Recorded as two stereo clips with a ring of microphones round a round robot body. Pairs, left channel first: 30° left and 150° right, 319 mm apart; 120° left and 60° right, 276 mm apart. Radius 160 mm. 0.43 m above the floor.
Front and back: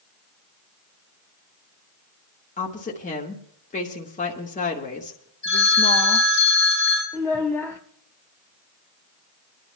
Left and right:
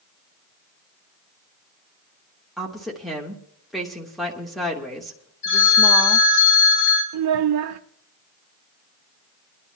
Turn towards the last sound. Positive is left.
turn(degrees=-50)